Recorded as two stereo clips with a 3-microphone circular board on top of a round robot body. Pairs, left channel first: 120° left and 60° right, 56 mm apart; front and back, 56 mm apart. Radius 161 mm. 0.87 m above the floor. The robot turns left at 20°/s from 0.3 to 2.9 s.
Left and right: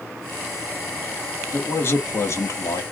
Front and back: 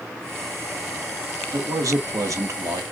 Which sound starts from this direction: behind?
A man speaking, at 1.5 s.